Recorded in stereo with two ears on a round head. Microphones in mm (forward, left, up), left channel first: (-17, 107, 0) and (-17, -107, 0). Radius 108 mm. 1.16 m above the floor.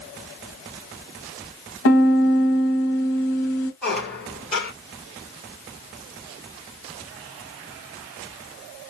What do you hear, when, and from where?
1.9 s a piano: 50° left (ahead or behind), 1.3 m
3.8 s a squeak: 5° left (ahead or behind), 1.4 m